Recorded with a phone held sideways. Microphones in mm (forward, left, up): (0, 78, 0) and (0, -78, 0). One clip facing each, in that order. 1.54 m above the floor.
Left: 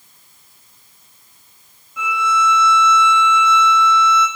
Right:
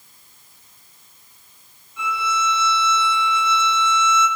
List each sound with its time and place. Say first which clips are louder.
2.0 s a violin: left 5 dB; 85° left, 3 m